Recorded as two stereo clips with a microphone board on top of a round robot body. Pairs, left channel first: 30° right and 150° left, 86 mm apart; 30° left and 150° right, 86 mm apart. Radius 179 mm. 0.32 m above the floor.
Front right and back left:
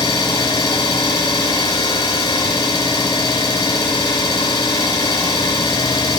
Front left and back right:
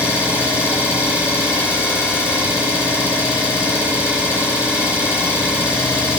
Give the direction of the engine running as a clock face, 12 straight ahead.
3 o'clock.